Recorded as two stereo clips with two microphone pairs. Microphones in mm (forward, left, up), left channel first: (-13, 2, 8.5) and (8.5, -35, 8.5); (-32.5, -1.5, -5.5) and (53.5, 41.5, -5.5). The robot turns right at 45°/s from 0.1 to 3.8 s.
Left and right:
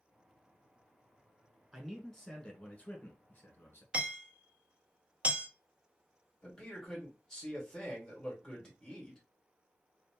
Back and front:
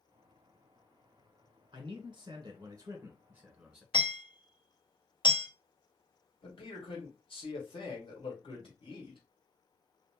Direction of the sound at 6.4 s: 165° right.